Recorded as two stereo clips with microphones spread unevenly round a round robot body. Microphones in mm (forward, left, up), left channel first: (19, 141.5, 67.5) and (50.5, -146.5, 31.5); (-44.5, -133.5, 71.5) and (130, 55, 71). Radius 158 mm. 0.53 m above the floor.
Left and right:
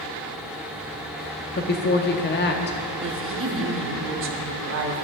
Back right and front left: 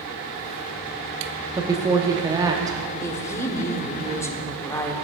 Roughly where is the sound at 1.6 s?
Left.